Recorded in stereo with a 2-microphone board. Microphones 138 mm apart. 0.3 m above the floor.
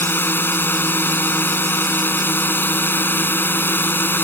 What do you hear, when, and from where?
0.0 s a drone: 15° left (ahead or behind)